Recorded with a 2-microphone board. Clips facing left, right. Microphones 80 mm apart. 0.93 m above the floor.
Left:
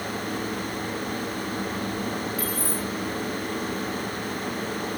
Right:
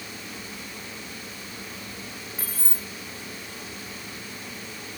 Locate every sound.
2.4 s keys jangling: 30° right (ahead or behind), 2 m